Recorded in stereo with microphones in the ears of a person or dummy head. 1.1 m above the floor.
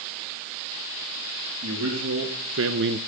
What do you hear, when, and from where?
1.6 s a man speaking: 80° right, 2 m; by 3.0 s 35° right (ahead or behind), 0.5 m